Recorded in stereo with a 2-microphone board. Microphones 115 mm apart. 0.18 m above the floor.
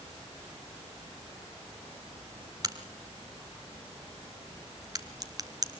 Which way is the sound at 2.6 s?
35° right (ahead or behind).